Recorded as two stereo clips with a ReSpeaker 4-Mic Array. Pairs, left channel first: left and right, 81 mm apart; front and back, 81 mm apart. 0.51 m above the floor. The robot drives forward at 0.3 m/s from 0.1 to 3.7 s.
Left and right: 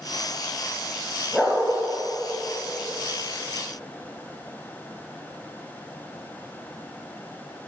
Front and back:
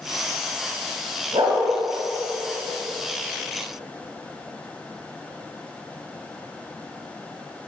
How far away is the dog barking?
About 0.8 m.